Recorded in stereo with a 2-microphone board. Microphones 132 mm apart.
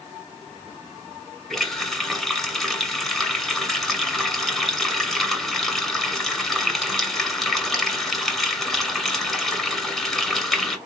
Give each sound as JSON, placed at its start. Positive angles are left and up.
{"t": 1.5, "sound": "a running tap", "side_deg": 0, "distance_m": 1.4}